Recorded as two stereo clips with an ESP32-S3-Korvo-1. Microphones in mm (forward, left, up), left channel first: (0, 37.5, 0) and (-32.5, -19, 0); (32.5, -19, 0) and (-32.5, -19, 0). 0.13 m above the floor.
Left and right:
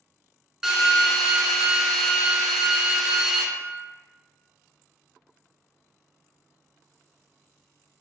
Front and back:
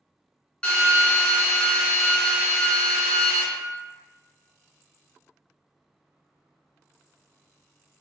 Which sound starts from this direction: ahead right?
A drill, at 0.6 s.